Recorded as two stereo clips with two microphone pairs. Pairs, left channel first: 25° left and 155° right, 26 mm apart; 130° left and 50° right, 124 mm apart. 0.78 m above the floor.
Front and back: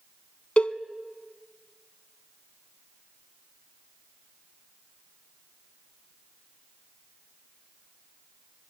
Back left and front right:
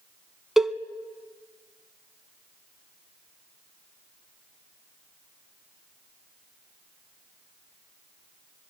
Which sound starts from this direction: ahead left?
A cowbell, at 0.6 s.